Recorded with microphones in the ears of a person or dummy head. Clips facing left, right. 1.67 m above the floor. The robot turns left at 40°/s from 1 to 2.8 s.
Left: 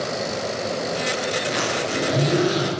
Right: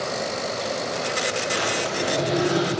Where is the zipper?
120° left, 7.5 m; by 2.7 s 65° left, 7.5 m.